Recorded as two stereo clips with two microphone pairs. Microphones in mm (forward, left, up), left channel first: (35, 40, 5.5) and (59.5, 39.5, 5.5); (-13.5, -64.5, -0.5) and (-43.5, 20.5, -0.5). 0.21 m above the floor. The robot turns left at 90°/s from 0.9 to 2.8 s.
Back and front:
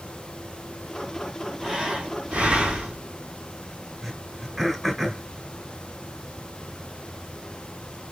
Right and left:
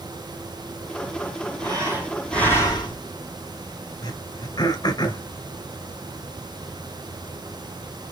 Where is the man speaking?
I don't hear a man speaking.